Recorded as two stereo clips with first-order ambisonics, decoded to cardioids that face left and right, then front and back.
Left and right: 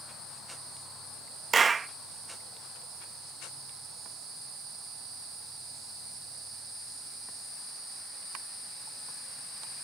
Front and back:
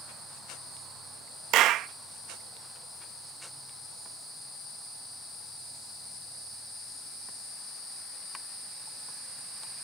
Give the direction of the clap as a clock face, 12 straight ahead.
5 o'clock.